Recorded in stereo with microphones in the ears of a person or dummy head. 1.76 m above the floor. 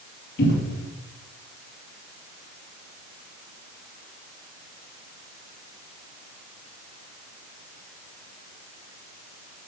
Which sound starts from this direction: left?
A cupboard door, at 0.4 s.